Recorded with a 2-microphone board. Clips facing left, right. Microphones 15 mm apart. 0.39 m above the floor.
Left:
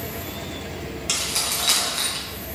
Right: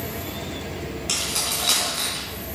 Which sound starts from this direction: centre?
Keys jangling, at 1.1 s.